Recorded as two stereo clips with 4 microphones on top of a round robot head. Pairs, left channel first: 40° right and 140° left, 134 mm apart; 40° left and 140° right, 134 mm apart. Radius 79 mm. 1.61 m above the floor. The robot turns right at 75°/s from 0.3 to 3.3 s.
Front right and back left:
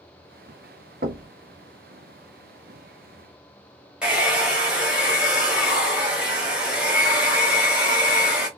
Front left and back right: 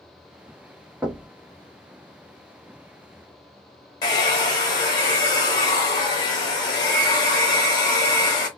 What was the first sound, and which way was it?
Knocking, 140° left.